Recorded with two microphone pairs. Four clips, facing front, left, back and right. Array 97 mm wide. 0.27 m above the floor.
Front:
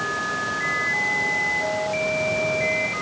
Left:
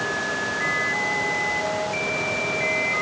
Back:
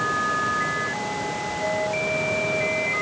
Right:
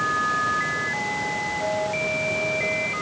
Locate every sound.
Only background noise.